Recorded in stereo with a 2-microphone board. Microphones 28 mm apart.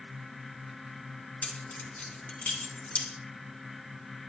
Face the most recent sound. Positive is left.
turn(degrees=55)  # may be behind; listen again after turning